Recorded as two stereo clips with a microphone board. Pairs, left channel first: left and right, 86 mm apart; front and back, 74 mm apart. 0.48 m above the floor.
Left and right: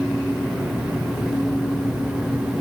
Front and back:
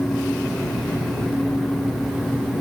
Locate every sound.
Only background noise.